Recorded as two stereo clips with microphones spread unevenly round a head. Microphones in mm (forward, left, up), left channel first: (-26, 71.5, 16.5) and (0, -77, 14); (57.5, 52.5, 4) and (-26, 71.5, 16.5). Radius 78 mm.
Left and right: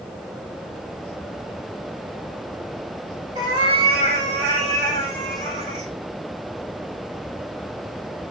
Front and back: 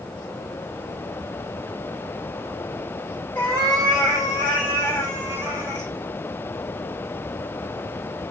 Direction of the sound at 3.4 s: 70° right.